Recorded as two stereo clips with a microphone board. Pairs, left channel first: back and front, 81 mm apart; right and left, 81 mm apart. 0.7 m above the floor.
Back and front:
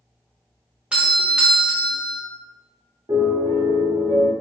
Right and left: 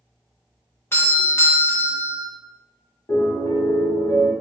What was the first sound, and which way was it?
A doorbell, 65° right.